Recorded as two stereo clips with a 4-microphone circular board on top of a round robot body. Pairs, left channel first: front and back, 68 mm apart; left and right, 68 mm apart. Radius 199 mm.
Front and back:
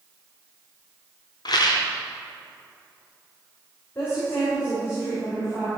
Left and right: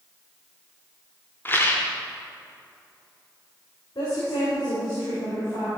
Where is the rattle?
25° left, 0.5 m.